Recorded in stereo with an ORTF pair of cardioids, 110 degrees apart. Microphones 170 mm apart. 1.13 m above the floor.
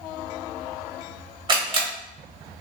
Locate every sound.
1.5 s a camera shutter: 30° right, 1.0 m